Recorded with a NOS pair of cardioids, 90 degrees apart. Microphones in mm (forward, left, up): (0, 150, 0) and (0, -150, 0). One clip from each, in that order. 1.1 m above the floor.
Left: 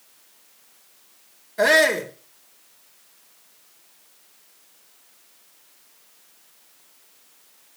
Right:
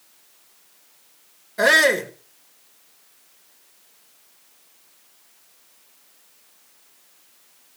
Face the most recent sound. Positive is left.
turn(degrees=-10)